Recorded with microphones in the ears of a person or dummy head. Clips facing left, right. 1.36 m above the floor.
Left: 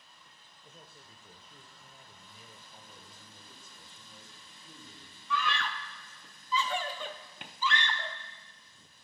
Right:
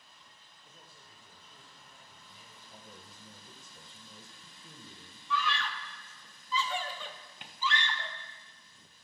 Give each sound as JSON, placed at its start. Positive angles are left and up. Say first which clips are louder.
{"t": 0.6, "sound": "a man speaking", "louder": "left 4 dB", "side_deg": 45, "distance_m": 1.1}
{"t": 2.7, "sound": "a man speaking", "louder": "right 2 dB", "side_deg": -65, "distance_m": 1.5}
{"t": 5.3, "sound": "a scream", "louder": "left 1 dB", "side_deg": 45, "distance_m": 0.6}